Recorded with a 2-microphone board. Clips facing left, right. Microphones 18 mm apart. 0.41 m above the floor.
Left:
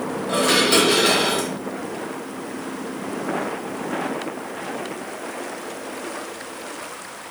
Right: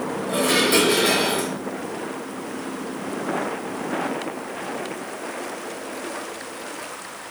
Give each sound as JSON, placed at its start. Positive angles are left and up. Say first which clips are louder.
{"t": 0.3, "sound": "dishes clattering", "louder": "left 2 dB", "side_deg": 45, "distance_m": 1.1}